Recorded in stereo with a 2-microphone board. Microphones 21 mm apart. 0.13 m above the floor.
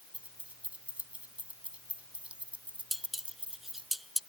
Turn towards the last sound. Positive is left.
turn(degrees=-5)  # may be behind; listen again after turning